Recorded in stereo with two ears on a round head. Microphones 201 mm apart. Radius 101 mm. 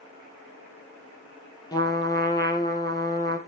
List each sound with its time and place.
1.7 s a trumpet: 15° left (ahead or behind), 2.5 m